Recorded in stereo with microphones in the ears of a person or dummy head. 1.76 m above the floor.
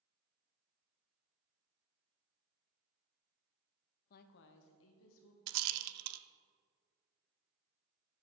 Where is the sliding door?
No sliding door in this recording.